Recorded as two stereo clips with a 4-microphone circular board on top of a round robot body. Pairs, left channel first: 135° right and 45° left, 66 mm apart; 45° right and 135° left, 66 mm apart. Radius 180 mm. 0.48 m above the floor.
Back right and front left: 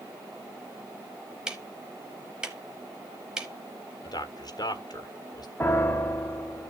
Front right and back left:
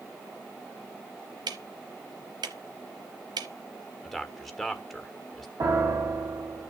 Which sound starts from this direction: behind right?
A man speaking, at 4.0 s.